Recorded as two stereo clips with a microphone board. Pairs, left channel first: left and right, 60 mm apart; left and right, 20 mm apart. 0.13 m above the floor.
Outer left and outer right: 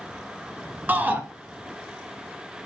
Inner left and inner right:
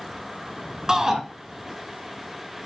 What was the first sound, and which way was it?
A shout, 30° right (ahead or behind).